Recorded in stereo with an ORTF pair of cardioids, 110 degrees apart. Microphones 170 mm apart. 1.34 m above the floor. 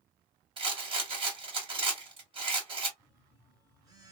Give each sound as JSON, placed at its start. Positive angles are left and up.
{"t": 0.6, "sound": "a rattle", "azimuth_deg": -30, "distance_m": 1.5}
{"t": 3.0, "sound": "a phone buzzing", "azimuth_deg": -25, "distance_m": 1.3}